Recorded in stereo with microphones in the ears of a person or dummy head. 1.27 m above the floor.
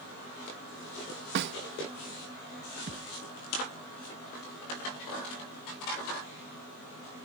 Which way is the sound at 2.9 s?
50° right (ahead or behind).